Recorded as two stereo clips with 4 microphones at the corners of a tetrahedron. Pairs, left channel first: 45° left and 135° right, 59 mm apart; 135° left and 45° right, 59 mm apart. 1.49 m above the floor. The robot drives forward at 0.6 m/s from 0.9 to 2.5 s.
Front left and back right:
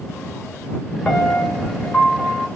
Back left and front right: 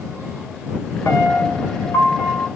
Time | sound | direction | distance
1.1 | a piano | 115° left | 2.5 m